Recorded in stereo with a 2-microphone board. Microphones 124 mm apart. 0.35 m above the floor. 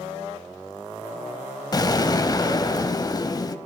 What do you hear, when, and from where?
1.7 s an explosion: 30° left (ahead or behind), 0.8 m